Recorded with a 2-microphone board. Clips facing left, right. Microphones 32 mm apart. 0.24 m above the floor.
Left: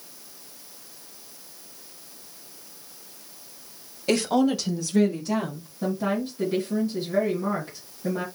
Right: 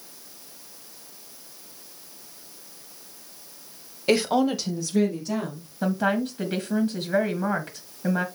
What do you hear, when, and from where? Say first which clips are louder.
4.1 s a woman speaking: right 1 dB; 20° right (ahead or behind), 1.0 m; by 5.7 s 15° left (ahead or behind), 2 m
5.8 s a woman speaking: right 2 dB; 65° right (ahead or behind), 2 m